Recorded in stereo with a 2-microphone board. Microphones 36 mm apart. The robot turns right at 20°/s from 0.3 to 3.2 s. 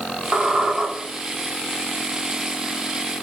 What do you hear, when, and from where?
0.3 s a squeak: 45° right (ahead or behind), 1.3 m; by 0.9 s 35° right (ahead or behind), 1.3 m